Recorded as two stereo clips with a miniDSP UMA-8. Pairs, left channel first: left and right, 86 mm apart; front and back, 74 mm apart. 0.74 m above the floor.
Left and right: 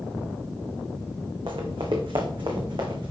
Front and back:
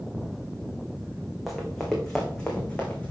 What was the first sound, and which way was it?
Running footsteps, 90° right.